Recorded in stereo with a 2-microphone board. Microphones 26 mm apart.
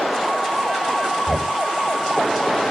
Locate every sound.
1.3 s knocking: 5° right (ahead or behind), 1.3 m